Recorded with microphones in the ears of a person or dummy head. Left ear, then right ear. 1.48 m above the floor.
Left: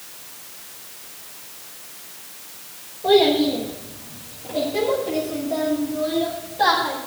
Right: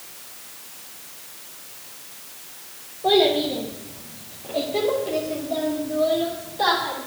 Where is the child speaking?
20° right (ahead or behind), 1.1 m; by 7.0 s 10° right (ahead or behind), 3.5 m.